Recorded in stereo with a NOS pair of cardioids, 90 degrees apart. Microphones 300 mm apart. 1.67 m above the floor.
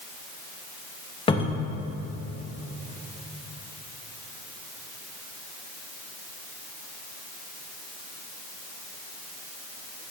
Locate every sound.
1.3 s a cupboard door: 20° left, 1.7 m